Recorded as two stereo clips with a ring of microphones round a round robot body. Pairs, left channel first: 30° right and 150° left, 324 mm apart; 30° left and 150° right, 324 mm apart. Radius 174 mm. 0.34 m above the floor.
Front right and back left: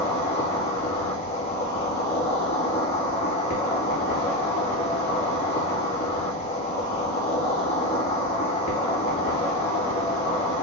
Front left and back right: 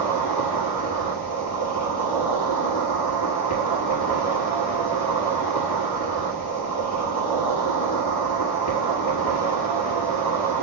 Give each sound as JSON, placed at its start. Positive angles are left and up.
{"t": 0.0, "sound": "an insect", "azimuth_deg": 40, "distance_m": 2.0}